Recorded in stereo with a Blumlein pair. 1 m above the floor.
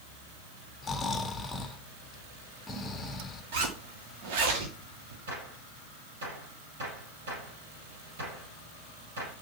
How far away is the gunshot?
About 5.5 m.